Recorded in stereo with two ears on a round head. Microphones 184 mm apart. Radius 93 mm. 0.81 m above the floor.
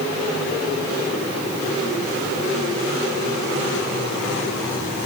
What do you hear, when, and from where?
Only background noise.